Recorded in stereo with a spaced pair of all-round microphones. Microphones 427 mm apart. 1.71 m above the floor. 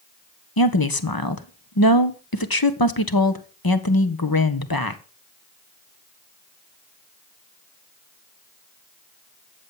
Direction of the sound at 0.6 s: 55° left (ahead or behind).